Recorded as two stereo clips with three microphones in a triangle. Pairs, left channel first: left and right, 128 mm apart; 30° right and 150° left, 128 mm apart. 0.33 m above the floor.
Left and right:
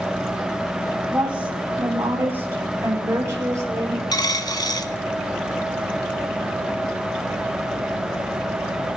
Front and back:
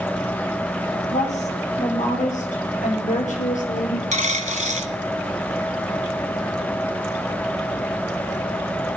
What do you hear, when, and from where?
1.1 s a woman speaking: 10° right, 8.5 m; by 4.0 s 25° right, 7.5 m
4.1 s a dropped coin: 145° left, 1.4 m